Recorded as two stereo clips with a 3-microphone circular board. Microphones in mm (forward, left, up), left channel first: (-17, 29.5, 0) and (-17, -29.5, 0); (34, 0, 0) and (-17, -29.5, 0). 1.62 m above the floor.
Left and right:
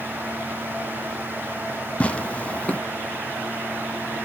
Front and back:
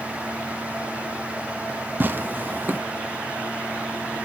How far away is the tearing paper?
About 0.6 m.